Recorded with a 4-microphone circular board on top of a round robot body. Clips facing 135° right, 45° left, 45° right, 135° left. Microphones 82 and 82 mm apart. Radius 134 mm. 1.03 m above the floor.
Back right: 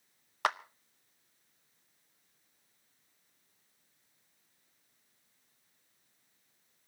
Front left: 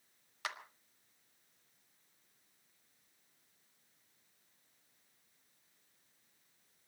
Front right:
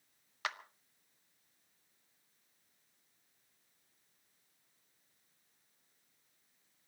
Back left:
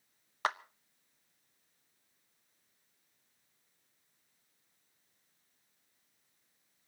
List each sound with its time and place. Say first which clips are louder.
0.4 s a clap: back right 12 dB, back left 7 dB; 170° right, 0.7 m